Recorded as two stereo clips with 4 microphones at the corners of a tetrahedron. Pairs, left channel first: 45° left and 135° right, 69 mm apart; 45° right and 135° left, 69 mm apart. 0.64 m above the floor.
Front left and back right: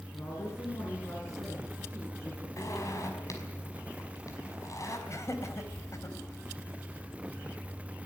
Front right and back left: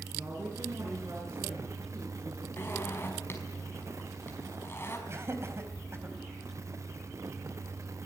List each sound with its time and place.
0.1 s a woman speaking: 90° left, 7.5 m; by 2.5 s 100° left, 7 m
2.6 s a zipper: 10° left, 5 m
5.1 s laughter: 85° left, 4 m